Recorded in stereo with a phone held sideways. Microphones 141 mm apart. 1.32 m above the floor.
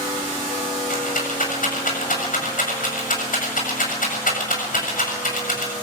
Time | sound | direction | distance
0.9 | a rattle | 75° left (ahead or behind) | 7.5 m